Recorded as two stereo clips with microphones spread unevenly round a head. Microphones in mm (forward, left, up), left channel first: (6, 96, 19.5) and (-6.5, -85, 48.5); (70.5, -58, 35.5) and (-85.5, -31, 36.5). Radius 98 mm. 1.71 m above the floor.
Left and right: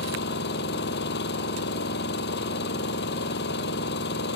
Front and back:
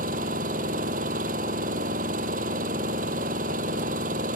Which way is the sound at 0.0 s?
120° left.